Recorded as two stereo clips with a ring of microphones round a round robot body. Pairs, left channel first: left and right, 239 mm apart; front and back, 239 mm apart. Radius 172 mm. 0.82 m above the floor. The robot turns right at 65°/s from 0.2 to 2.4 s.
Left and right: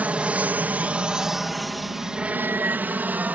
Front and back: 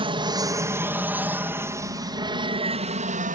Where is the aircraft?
165° right.